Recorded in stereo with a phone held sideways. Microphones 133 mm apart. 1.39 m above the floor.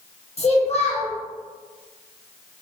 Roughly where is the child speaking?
Left.